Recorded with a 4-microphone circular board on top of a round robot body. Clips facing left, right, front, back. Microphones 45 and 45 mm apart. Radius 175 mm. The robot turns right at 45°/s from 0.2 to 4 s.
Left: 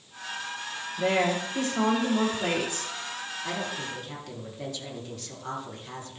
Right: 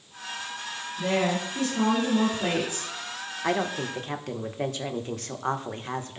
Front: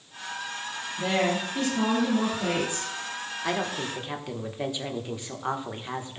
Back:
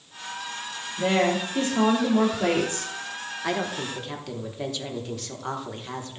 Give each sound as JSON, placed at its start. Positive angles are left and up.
{"t": 1.0, "sound": "a woman speaking", "azimuth_deg": 105, "distance_m": 3.0}
{"t": 3.4, "sound": "a woman speaking", "azimuth_deg": -90, "distance_m": 1.7}